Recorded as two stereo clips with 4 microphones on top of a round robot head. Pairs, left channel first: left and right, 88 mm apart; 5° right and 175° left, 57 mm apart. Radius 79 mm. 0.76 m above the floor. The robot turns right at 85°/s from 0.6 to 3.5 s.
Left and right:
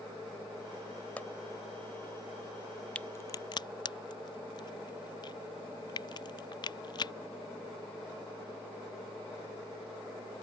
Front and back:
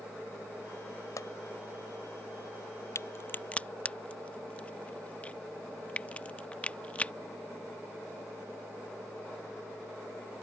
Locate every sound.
1.2 s a pop: 15° left; by 1.3 s 25° left
3.0 s a crack: 10° left; by 7.1 s 60° left